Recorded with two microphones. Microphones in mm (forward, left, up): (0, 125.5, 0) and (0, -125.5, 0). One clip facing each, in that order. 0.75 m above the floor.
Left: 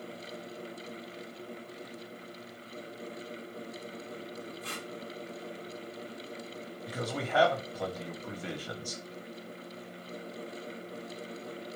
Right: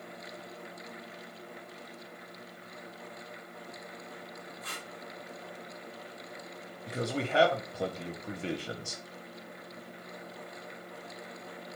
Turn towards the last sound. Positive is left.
turn(degrees=-25)  # may be behind; listen again after turning